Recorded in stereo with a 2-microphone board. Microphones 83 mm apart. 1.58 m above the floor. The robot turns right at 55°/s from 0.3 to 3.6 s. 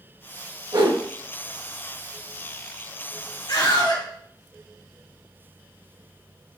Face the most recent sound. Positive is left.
turn(degrees=85)